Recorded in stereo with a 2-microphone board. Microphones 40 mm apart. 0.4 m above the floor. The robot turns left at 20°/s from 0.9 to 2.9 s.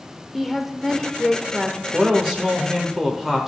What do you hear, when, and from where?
0.3 s a woman speaking: centre (ahead or behind), 0.8 m; by 1.8 s 5° left (ahead or behind), 0.8 m
1.9 s a man speaking: 20° right (ahead or behind), 1.0 m; by 3.5 s 10° right (ahead or behind), 1.0 m